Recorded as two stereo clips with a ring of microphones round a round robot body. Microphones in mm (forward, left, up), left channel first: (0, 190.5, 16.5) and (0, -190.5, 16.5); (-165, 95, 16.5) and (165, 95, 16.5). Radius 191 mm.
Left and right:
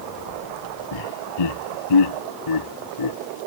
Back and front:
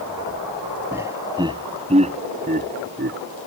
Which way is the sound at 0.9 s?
80° left.